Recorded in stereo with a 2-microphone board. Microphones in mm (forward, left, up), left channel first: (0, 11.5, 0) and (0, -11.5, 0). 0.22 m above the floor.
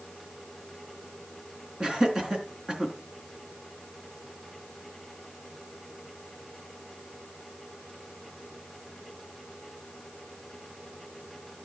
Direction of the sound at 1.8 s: 30° right (ahead or behind).